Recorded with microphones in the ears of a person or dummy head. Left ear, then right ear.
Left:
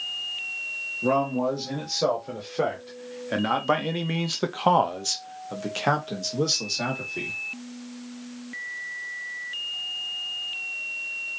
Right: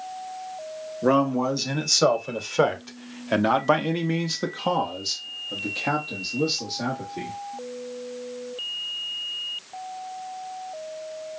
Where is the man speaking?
55° right (ahead or behind), 1.7 m; by 7.4 s 80° left, 1.8 m.